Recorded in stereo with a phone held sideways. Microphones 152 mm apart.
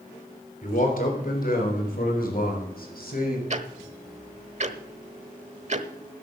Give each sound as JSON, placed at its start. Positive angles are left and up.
{"t": 0.6, "sound": "a man speaking", "side_deg": 65, "distance_m": 4.0}
{"t": 3.5, "sound": "ticking", "side_deg": -50, "distance_m": 1.0}